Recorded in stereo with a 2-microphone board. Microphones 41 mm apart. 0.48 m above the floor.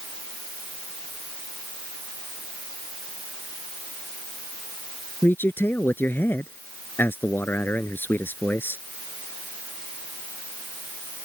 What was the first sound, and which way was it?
A man speaking, 60° left (ahead or behind).